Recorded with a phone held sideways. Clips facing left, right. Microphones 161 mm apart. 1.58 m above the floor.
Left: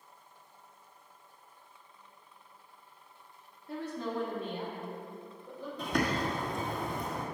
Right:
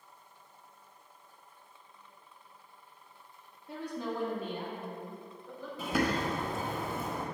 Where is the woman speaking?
20° right (ahead or behind), 2 m; by 5.7 s 15° left (ahead or behind), 5 m.